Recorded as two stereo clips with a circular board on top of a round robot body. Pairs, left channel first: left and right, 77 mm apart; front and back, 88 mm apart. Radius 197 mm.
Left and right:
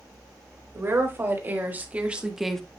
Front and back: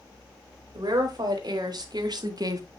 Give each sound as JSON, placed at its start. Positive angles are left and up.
{"t": 0.7, "sound": "a woman speaking", "azimuth_deg": -145, "distance_m": 3.0}